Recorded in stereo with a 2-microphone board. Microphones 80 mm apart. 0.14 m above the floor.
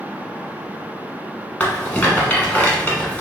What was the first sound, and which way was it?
A rattle, 20° left (ahead or behind).